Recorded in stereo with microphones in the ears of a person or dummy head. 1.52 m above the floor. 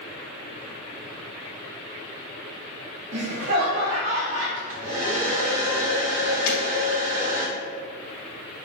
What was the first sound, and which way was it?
Laughter, 35° right (ahead or behind).